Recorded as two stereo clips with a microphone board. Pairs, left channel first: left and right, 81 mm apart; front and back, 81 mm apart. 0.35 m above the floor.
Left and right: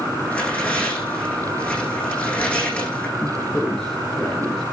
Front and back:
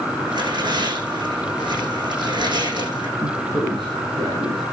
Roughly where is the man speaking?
Behind.